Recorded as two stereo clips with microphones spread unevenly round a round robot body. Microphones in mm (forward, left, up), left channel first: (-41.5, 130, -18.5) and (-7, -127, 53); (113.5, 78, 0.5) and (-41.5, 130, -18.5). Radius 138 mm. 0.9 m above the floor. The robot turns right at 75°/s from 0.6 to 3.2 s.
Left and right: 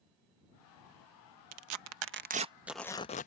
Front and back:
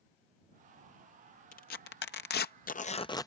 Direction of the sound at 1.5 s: 75° right.